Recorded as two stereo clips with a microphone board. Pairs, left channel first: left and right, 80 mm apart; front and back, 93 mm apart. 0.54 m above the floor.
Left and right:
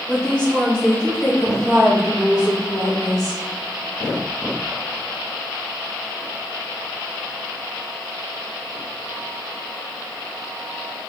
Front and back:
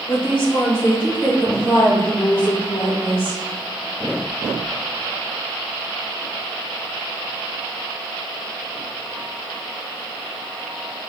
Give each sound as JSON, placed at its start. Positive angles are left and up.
{"t": 0.1, "sound": "a woman speaking", "azimuth_deg": 15, "distance_m": 1.5}